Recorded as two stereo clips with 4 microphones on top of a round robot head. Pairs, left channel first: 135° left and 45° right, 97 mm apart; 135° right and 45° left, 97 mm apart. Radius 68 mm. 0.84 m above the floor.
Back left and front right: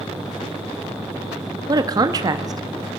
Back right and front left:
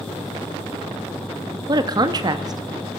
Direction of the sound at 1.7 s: Straight ahead.